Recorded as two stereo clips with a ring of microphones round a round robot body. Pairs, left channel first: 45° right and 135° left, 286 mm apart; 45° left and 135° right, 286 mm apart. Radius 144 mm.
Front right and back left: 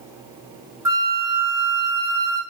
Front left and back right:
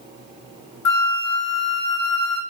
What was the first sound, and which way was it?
A flute, 55° left.